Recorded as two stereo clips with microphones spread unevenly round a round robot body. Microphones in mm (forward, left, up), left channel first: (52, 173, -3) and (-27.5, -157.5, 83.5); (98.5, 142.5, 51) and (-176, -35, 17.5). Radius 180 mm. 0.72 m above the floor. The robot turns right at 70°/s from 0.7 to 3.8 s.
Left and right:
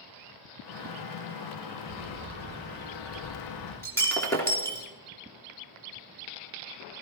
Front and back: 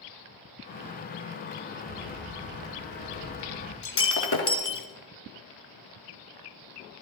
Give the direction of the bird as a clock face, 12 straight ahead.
2 o'clock.